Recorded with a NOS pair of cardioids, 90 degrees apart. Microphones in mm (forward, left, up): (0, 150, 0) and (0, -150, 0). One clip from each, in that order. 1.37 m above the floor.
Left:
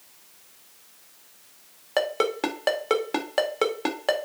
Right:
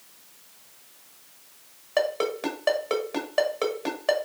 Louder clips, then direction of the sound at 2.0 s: Left 1 dB; 45° left.